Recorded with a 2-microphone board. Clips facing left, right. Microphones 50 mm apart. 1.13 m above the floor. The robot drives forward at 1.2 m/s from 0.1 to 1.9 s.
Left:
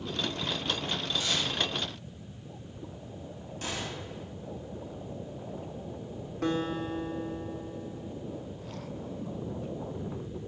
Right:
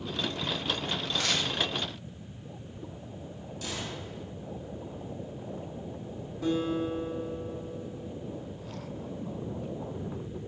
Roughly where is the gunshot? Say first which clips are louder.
Left 1 dB; left.